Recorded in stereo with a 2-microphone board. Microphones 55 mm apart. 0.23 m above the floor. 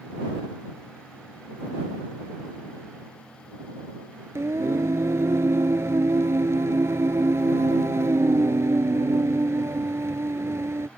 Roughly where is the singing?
Right.